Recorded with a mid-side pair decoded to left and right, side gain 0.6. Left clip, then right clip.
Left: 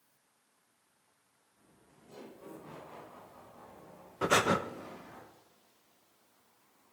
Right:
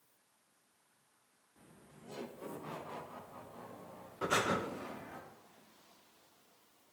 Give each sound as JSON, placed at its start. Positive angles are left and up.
{"t": 1.6, "sound": "laughter", "azimuth_deg": -45, "distance_m": 1.7}
{"t": 4.2, "sound": "breathing", "azimuth_deg": 35, "distance_m": 0.9}